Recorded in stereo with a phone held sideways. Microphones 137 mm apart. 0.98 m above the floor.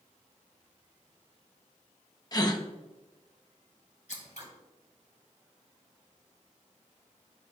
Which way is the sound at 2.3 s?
30° left (ahead or behind).